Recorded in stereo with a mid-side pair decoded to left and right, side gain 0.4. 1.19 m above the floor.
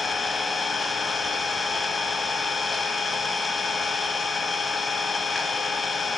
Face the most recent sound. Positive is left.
turn(degrees=25)